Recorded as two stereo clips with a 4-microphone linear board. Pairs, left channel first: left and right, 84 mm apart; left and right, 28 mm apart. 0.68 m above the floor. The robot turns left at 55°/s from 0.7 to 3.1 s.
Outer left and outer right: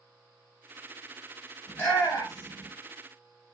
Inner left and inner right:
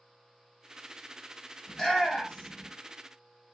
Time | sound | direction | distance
1.7 | a shout | 20° left (ahead or behind) | 1.8 m